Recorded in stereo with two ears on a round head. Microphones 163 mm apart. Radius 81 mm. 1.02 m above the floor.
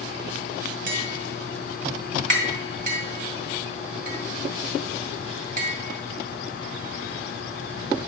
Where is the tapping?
50° right (ahead or behind), 1.9 m.